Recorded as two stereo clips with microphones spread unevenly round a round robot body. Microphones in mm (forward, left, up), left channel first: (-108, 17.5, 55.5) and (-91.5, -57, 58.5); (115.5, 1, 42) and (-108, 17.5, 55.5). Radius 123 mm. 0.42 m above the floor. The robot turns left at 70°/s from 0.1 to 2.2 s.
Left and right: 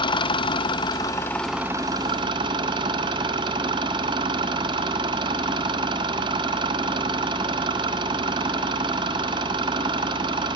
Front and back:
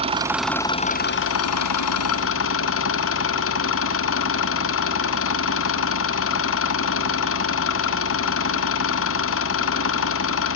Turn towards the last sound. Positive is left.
turn(degrees=-40)